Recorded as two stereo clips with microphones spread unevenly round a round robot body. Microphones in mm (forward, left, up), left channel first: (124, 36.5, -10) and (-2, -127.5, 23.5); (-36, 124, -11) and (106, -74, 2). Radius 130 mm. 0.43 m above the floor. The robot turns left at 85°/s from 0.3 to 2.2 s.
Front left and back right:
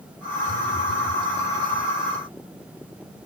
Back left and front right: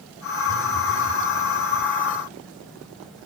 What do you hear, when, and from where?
0.5 s a phone buzzing: 70° left, 2.0 m; by 1.2 s 5° left, 2.0 m